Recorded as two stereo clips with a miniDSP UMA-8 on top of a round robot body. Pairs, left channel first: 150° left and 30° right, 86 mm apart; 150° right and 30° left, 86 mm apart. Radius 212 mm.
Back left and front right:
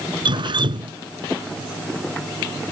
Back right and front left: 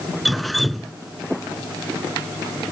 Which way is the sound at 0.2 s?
60° right.